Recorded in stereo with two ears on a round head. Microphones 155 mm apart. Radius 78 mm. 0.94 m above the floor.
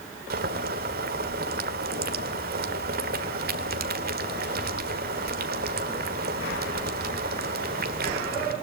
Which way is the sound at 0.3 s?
60° right (ahead or behind).